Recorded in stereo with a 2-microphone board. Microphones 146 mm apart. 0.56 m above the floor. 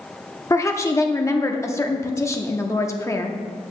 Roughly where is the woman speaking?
Left.